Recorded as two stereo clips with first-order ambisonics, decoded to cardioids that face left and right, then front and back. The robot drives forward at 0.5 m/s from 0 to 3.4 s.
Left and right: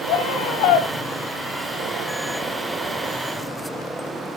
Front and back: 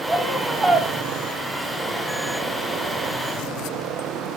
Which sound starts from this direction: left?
A scream, at 0.1 s.